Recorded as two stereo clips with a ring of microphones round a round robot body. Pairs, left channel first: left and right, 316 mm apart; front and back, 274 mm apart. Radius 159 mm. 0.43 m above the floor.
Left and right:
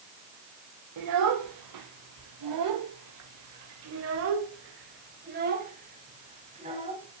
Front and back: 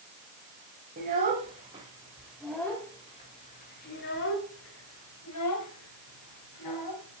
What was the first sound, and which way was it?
A child speaking, 120° right.